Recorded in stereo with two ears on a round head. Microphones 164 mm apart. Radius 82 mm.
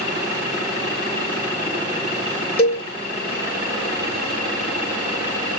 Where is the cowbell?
30° left (ahead or behind), 1.0 m.